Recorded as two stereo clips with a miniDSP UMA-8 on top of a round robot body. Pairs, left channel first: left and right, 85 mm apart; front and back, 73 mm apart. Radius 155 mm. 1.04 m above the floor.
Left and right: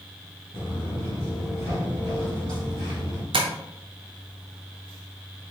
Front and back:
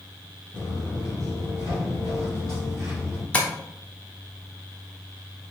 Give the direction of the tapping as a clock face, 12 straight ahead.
2 o'clock.